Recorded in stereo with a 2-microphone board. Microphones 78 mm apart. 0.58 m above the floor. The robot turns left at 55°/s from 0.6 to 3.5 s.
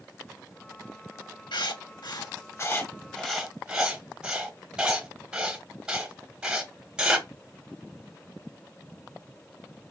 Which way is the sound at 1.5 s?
75° left (ahead or behind).